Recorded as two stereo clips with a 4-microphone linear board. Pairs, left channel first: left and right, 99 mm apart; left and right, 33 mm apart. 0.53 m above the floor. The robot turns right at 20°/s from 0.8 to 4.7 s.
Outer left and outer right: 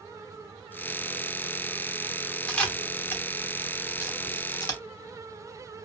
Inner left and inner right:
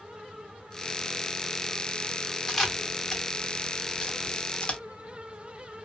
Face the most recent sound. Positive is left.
turn(degrees=40)  # may be behind; listen again after turning